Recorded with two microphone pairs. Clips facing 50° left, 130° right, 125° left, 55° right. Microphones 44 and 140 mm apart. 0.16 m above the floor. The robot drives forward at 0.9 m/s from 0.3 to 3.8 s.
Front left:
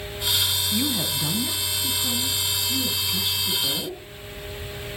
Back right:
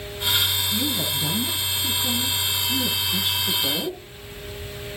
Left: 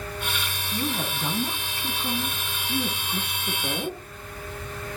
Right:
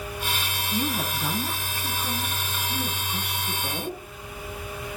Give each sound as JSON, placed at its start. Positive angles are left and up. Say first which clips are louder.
{"t": 0.7, "sound": "a woman speaking", "louder": "even, right 1 dB", "azimuth_deg": 10, "distance_m": 1.3}